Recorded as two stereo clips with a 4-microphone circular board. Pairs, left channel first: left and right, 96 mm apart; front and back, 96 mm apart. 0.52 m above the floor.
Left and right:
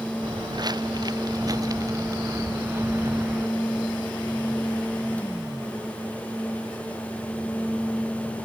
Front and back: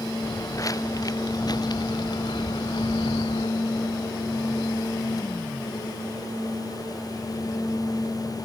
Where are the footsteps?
50° right; by 3.5 s 20° right.